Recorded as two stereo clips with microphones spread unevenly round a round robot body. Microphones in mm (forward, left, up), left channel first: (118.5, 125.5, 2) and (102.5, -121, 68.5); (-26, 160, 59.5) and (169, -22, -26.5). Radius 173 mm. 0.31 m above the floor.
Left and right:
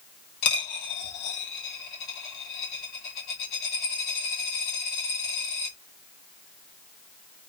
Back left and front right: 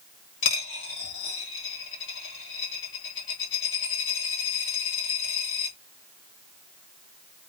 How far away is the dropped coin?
About 2.0 m.